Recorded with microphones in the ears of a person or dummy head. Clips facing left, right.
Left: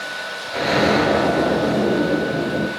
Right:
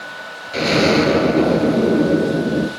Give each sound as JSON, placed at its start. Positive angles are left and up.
{"t": 0.5, "sound": "an explosion", "side_deg": -35, "distance_m": 3.0}